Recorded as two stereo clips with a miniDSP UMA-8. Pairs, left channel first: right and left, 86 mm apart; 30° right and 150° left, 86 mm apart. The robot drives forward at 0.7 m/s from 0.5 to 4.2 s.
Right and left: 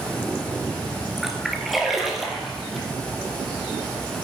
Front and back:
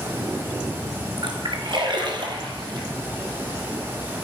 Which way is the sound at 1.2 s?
Straight behind.